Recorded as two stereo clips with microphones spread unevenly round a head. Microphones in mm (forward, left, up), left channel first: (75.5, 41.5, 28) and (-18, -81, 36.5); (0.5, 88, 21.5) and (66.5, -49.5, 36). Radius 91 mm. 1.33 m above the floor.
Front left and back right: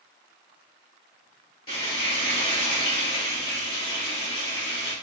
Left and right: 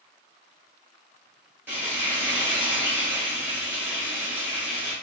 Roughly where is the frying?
Ahead.